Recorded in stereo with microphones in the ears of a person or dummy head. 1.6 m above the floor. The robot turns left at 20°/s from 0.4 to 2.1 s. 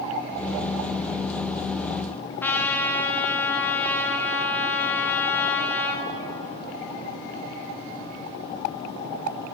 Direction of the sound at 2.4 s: 10° left (ahead or behind).